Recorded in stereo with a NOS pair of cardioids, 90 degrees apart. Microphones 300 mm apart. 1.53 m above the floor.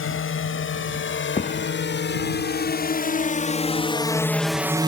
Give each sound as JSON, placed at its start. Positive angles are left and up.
{"t": 0.0, "sound": "a drone", "azimuth_deg": 45}
{"t": 1.4, "sound": "a thud", "azimuth_deg": 25}